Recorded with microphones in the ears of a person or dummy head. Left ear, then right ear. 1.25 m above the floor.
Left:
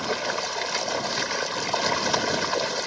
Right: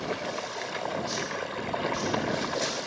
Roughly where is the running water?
Left.